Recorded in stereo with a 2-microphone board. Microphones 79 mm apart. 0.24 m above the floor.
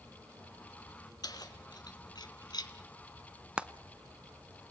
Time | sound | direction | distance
1.2 | keys jangling | 55° left (ahead or behind) | 2 m
3.6 | frying | 15° right (ahead or behind) | 0.6 m